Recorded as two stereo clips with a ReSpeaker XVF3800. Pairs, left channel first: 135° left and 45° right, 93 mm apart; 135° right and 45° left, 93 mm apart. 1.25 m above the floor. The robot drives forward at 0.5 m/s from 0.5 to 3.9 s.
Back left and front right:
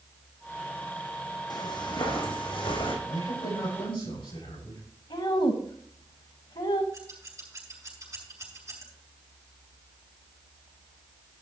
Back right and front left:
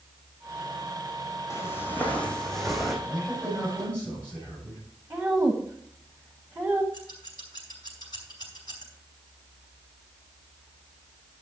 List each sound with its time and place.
1.5 s footsteps: 170° left, 3 m; by 3.0 s 130° left, 3.5 m
3.0 s a man speaking: 150° left, 7 m
5.1 s a woman speaking: 130° left, 1.3 m
6.9 s scissors: 100° right, 4.5 m